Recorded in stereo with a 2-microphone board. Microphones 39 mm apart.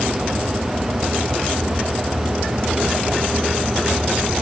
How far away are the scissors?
No scissors in this recording.